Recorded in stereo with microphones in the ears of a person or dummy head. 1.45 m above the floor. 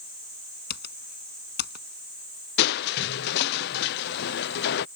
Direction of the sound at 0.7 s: 55° left (ahead or behind).